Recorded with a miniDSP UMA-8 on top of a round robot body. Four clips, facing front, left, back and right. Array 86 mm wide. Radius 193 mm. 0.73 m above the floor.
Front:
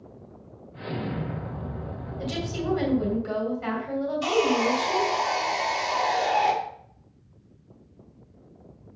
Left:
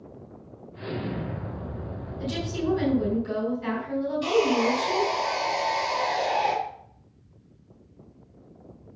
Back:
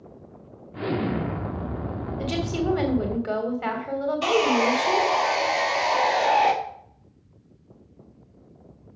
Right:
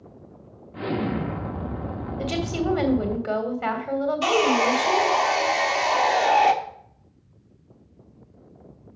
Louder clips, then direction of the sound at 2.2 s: Right 3 dB, back 4 dB; 130° right.